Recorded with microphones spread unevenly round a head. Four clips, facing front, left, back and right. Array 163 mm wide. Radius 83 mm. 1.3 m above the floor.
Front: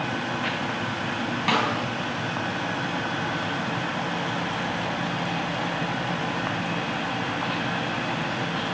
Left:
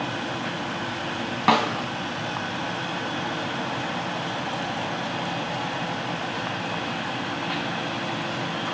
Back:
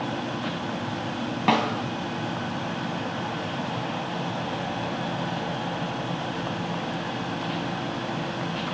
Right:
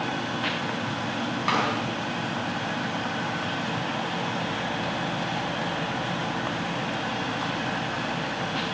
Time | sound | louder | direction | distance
1.5 | a snare drum | left 6 dB, back 2 dB | 135° left | 3.5 m